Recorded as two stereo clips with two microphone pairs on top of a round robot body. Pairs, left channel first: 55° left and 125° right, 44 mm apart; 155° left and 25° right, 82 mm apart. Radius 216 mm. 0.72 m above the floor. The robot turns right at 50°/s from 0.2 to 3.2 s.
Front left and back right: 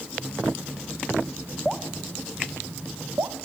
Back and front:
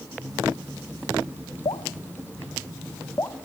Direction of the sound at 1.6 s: 135° left.